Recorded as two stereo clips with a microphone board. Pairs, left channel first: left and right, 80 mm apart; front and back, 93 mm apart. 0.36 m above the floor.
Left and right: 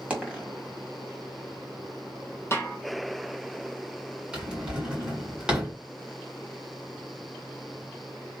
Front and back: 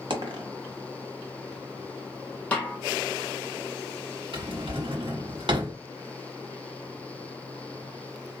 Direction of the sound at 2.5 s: 65° left.